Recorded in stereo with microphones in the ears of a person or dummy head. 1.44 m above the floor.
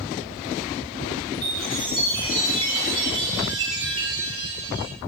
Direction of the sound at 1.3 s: 30° right (ahead or behind).